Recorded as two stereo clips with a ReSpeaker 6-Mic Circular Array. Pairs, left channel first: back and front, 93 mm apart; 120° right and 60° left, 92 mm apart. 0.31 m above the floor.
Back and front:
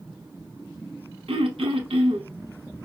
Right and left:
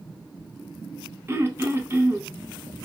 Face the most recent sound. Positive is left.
turn(degrees=-5)